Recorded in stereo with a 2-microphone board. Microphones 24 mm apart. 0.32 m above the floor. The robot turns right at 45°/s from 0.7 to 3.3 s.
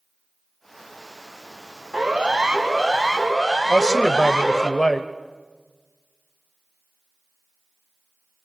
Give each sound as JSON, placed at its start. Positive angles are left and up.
{"t": 1.9, "sound": "a siren", "side_deg": -55, "distance_m": 3.5}
{"t": 3.7, "sound": "a man speaking", "side_deg": 30, "distance_m": 1.4}